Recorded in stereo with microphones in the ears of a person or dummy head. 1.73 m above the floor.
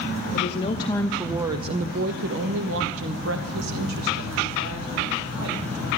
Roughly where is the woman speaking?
Left.